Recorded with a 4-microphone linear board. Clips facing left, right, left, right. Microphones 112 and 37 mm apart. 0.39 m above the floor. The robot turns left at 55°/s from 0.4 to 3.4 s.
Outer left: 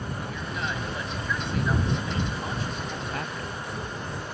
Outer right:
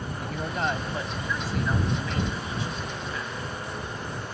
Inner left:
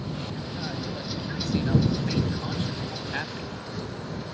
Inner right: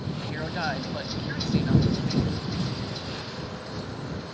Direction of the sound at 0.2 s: 115° right.